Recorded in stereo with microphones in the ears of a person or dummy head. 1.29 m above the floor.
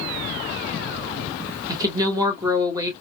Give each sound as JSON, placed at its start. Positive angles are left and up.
{"t": 1.7, "sound": "a woman speaking", "side_deg": -25, "distance_m": 1.5}